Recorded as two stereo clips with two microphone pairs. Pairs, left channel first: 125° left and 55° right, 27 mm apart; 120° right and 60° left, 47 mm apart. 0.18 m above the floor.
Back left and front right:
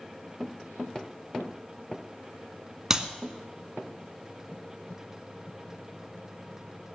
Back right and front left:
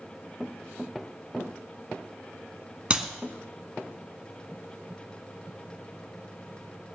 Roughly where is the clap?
Ahead.